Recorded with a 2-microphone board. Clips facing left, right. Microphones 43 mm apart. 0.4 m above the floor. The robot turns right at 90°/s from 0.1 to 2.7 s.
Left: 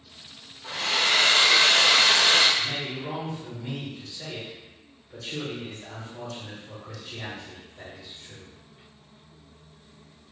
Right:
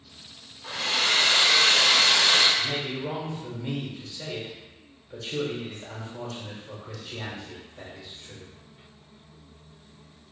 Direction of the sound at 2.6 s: 30° right (ahead or behind).